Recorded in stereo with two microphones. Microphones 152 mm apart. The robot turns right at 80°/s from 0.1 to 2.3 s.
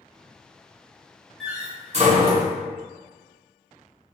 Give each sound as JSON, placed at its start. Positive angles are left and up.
{"t": 1.4, "sound": "a door slam", "side_deg": 0, "distance_m": 1.2}